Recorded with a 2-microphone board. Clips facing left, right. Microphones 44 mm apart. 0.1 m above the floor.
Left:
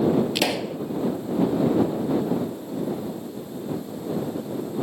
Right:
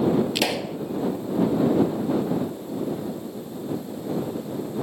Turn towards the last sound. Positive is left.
turn(degrees=0)  # may be behind; listen again after turning